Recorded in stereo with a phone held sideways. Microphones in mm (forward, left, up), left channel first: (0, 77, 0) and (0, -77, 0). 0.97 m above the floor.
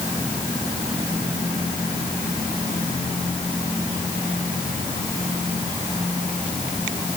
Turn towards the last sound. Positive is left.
No sound to turn to.